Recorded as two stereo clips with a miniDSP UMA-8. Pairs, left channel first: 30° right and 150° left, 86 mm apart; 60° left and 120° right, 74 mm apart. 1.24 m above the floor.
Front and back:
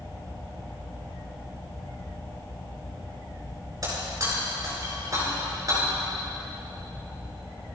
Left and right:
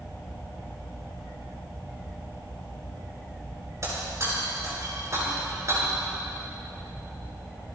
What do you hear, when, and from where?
3.8 s breaking glass: 165° right, 6 m